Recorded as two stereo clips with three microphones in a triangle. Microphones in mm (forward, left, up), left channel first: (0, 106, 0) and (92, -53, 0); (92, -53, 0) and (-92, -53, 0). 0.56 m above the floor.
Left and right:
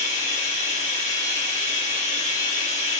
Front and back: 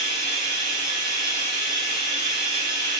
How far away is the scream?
I don't hear a scream.